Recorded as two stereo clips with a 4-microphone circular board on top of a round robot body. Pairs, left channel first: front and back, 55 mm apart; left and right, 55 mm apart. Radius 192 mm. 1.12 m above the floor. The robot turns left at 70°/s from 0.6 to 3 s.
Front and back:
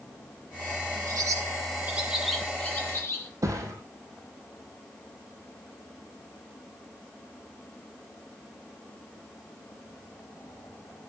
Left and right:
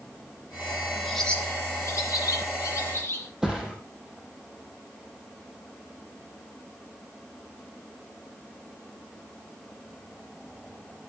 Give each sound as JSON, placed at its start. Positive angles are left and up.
{"t": 1.1, "sound": "a bird", "azimuth_deg": 180, "distance_m": 0.6}
{"t": 3.4, "sound": "a thud", "azimuth_deg": -170, "distance_m": 5.0}